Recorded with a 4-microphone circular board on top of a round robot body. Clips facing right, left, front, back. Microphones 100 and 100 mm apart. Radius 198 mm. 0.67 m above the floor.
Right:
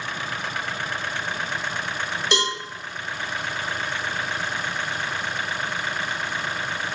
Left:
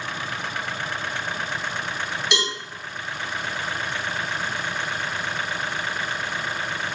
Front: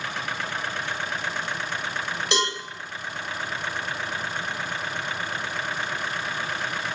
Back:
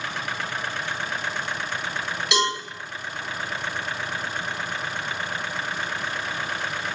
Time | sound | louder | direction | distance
2.3 | a cowbell | right 4 dB, back 3 dB | 45° right | 1.4 m